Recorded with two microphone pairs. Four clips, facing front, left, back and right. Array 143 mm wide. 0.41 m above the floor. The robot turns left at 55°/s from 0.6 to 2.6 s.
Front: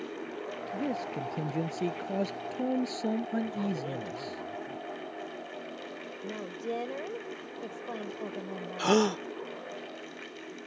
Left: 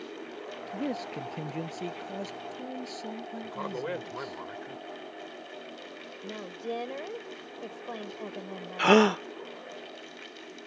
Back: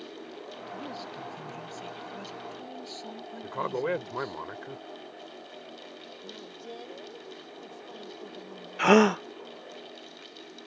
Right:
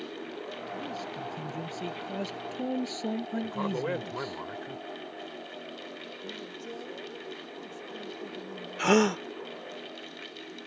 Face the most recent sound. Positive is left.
turn(degrees=145)